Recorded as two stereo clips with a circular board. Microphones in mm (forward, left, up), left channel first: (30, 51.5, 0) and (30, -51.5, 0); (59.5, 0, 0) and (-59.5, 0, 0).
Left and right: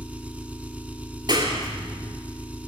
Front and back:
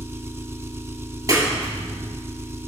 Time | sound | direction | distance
0.0 | an engine running | 150° right | 0.7 m
1.3 | a clap | 125° right | 2 m